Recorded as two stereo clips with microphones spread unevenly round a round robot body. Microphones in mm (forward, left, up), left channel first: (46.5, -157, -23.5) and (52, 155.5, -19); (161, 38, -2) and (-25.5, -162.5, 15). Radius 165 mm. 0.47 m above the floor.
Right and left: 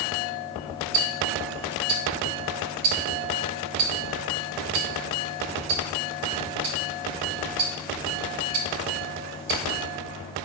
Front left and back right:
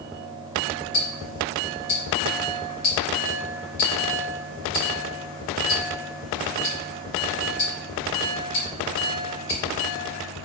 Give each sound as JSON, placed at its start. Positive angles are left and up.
{"t": 0.9, "sound": "ticking", "azimuth_deg": 95, "distance_m": 1.2}